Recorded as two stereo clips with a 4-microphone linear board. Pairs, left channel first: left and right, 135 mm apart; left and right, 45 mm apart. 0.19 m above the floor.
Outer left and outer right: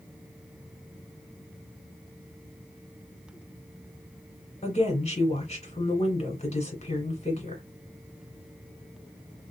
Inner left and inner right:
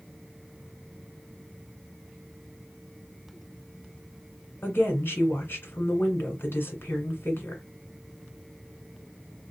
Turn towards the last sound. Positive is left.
turn(degrees=55)  # may be behind; listen again after turning